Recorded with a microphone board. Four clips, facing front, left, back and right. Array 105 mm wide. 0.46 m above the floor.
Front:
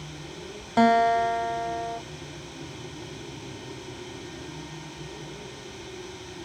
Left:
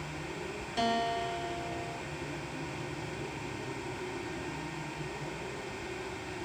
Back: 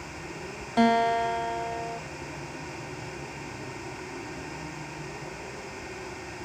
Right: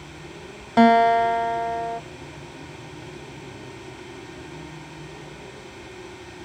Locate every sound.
0.8 s a guitar: 75° right, 0.9 m